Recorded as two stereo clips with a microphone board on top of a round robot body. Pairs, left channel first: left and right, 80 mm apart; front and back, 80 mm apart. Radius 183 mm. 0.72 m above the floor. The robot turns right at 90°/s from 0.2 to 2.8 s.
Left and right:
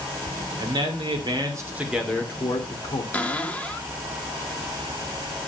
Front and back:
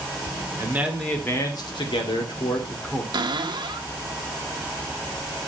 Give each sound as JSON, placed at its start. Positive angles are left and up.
{"t": 0.6, "sound": "a man speaking", "azimuth_deg": -130, "distance_m": 2.5}
{"t": 3.1, "sound": "a cupboard door", "azimuth_deg": 160, "distance_m": 1.4}